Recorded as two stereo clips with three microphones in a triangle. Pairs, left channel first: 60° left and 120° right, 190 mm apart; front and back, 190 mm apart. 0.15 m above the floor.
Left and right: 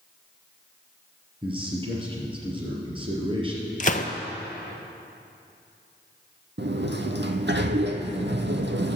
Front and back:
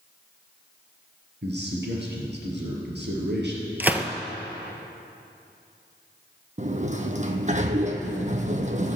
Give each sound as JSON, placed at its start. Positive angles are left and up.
{"t": 1.4, "sound": "a man speaking", "azimuth_deg": 180, "distance_m": 3.0}
{"t": 3.8, "sound": "a gunshot", "azimuth_deg": 100, "distance_m": 0.9}
{"t": 6.6, "sound": "a sliding door", "azimuth_deg": -135, "distance_m": 1.0}